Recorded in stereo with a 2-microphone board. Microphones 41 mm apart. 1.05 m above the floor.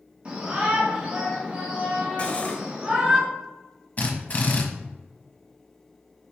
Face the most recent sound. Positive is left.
turn(degrees=35)  # may be behind; listen again after turning